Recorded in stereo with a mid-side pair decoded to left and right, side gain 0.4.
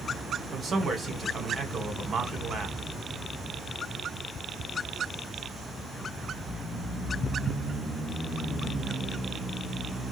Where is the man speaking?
45° right, 1.5 m.